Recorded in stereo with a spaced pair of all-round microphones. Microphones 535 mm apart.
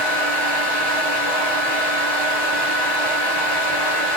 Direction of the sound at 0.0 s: 45° left (ahead or behind).